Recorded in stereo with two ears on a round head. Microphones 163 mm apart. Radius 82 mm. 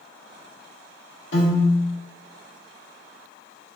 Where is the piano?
65° left (ahead or behind), 1.3 m.